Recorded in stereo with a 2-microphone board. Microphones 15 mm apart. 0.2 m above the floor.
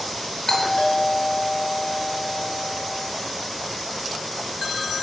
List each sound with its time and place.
0.5 s a doorbell: 30° left (ahead or behind), 6 m